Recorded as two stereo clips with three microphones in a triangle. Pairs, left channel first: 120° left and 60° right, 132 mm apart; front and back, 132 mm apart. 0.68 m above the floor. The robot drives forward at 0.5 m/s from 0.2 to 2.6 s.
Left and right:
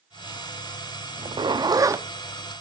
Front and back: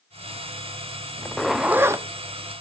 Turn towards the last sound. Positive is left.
turn(degrees=-140)